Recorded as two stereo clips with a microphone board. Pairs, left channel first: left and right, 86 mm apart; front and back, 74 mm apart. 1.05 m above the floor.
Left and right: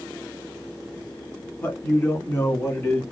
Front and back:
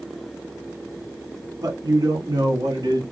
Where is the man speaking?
145° left, 2 m; by 3.0 s 150° left, 1.3 m.